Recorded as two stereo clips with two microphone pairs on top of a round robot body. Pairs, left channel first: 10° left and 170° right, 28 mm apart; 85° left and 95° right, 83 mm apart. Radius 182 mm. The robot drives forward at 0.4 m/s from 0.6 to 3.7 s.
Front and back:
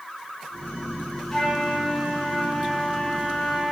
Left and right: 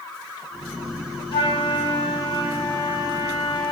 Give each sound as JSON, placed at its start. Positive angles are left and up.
{"t": 1.3, "sound": "a flute", "azimuth_deg": 85, "distance_m": 5.0}